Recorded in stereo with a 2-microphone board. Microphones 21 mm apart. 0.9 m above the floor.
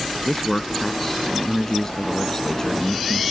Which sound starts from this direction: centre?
A man speaking, at 0.2 s.